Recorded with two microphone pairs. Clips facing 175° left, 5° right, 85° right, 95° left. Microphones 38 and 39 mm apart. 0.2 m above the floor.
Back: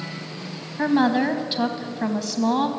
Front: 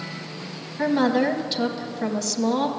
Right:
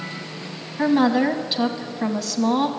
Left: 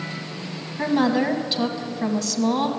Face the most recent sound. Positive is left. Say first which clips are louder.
# back 1 dB, right 3 dB
turn(degrees=-145)